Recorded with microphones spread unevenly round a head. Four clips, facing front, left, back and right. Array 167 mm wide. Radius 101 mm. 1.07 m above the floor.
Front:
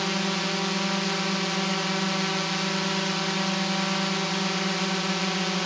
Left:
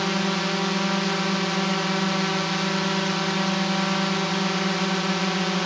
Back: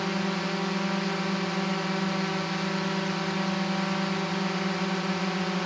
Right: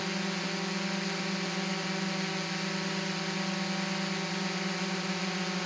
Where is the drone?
70° left.